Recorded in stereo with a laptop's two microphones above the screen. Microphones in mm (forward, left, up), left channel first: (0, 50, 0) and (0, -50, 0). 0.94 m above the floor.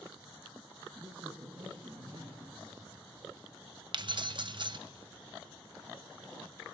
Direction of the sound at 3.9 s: 50° right (ahead or behind).